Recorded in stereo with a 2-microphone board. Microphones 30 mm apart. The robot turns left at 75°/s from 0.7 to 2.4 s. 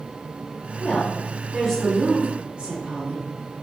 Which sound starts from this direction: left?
A woman speaking, at 0.8 s.